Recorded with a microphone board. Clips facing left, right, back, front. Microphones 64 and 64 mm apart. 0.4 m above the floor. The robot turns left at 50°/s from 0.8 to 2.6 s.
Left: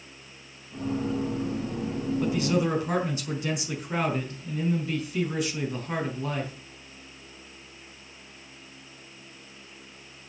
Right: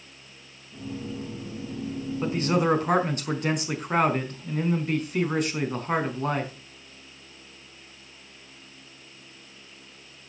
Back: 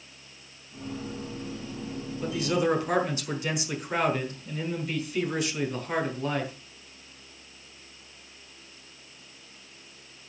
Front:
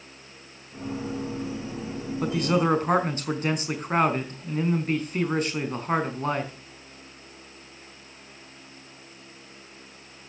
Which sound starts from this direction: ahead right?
A man speaking, at 2.2 s.